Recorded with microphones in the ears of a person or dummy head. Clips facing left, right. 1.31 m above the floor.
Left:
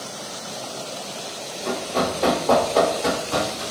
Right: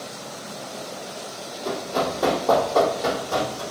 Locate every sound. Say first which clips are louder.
1.6 s running footsteps: left 1 dB; 45° right (ahead or behind), 1.9 m; by 3.6 s 50° right (ahead or behind), 3 m